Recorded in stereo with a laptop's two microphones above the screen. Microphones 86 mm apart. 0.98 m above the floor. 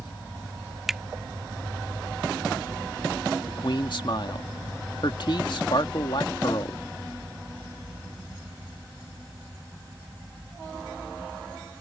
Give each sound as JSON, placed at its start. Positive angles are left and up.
{"t": 0.9, "sound": "a finger snap", "side_deg": -5}
{"t": 3.5, "sound": "a man speaking", "side_deg": 65}